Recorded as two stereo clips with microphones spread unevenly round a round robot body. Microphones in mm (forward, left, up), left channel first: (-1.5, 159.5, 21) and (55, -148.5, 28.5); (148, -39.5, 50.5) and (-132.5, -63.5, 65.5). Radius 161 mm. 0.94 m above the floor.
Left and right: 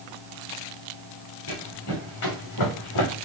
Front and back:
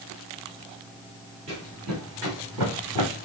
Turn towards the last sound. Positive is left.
turn(degrees=140)